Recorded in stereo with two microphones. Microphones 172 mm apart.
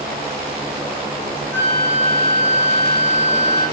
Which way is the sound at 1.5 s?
10° left (ahead or behind).